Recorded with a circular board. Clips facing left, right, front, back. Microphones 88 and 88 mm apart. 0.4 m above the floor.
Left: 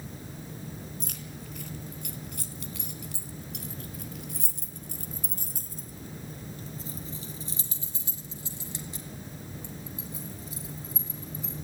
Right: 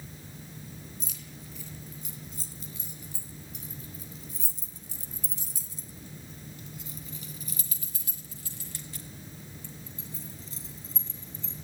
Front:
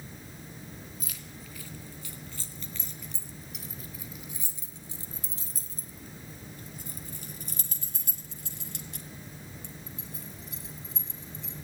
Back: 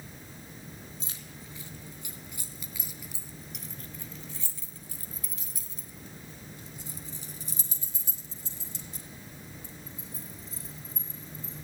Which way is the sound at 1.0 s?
120° left.